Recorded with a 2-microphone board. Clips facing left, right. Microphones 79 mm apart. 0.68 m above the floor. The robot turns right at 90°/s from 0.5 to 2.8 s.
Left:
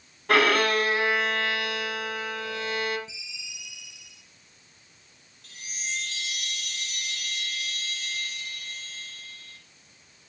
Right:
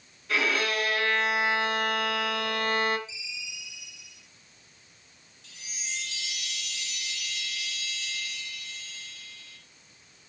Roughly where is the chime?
Left.